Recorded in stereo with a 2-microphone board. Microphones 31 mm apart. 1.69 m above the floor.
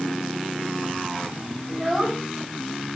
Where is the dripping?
I don't hear dripping.